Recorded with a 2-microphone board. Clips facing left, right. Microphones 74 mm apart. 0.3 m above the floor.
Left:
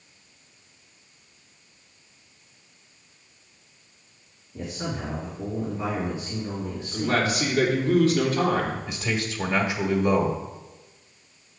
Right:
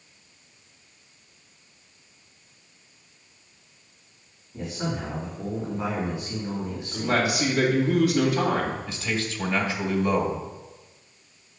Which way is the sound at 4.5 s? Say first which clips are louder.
Right 1 dB; 25° right (ahead or behind).